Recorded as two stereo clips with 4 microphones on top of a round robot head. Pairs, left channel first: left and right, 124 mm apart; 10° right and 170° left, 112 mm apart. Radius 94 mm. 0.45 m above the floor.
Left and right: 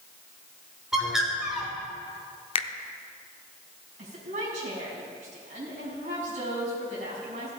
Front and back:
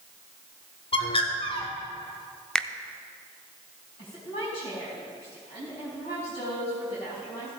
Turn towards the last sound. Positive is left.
turn(degrees=-55)